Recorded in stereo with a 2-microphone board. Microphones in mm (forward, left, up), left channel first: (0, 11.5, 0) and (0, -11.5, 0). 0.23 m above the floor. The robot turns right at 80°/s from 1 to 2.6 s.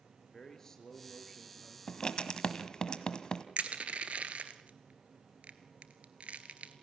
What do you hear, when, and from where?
0.3 s a man speaking: 160° left, 3.5 m; by 1.8 s 140° right, 3.5 m
1.9 s writing: 35° left (ahead or behind), 1.3 m
3.6 s crushing: 70° right (ahead or behind), 1.5 m